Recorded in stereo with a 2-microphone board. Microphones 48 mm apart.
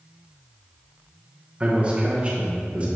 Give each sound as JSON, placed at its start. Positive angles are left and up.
{"t": 1.6, "sound": "a man speaking", "side_deg": -25, "distance_m": 1.4}